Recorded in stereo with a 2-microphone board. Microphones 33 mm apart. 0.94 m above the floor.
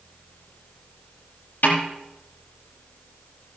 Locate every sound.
1.6 s a snare drum: 80° left, 6.5 m